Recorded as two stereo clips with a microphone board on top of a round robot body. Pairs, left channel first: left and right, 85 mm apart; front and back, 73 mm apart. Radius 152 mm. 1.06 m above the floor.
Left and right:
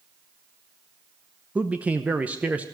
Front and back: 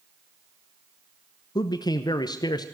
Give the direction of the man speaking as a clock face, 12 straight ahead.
1 o'clock.